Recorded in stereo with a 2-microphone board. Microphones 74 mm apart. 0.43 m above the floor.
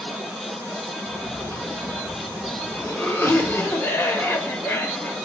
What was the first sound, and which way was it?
A cough, 30° left (ahead or behind).